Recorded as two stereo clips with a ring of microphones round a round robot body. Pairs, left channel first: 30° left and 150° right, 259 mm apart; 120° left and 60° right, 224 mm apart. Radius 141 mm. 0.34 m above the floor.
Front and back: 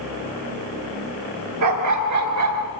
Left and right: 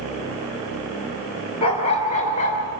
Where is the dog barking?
170° right, 2.5 m; by 2.7 s straight behind, 1.9 m.